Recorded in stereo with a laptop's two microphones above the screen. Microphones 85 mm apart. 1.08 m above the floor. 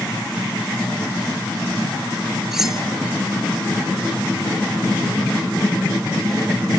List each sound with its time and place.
2.5 s cutlery clinking: 5° right (ahead or behind)